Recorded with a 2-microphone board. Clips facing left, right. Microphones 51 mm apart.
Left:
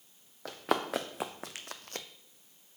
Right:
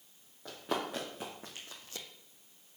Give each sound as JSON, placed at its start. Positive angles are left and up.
{"t": 0.5, "sound": "running footsteps", "side_deg": 70, "distance_m": 1.2}